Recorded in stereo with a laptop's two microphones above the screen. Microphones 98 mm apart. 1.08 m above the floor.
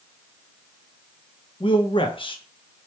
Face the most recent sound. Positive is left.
turn(degrees=60)  # may be behind; listen again after turning